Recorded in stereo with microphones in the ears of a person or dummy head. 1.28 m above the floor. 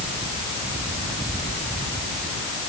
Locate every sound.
Only background noise.